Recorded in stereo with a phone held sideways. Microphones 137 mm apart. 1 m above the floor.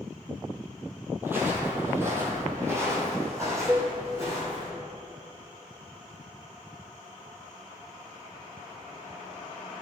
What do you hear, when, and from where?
1.2 s footsteps: 15° right (ahead or behind), 1.5 m; by 4.7 s 20° right (ahead or behind), 3.5 m
3.7 s a cowbell: 5° right (ahead or behind), 0.7 m